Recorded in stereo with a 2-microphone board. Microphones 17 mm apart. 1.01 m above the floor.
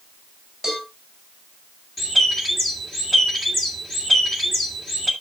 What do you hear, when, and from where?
0.6 s a cowbell: 5° right (ahead or behind), 7 m
2.0 s a bird: 20° left (ahead or behind), 2.5 m